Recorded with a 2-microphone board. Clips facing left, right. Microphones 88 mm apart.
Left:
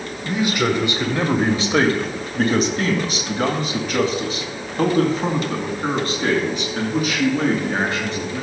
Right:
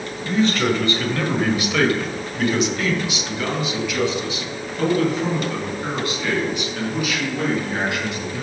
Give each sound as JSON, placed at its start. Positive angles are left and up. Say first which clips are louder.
{"t": 0.2, "sound": "a man speaking", "louder": "right 1 dB", "side_deg": 10, "distance_m": 1.6}